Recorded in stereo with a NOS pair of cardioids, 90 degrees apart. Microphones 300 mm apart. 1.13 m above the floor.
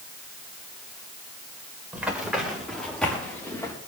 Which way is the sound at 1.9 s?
5° right.